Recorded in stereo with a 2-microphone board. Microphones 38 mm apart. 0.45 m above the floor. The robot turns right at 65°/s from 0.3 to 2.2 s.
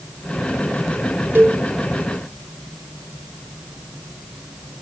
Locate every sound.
1.4 s a cowbell: 65° right (ahead or behind), 3.5 m; by 1.6 s 80° right, 3.5 m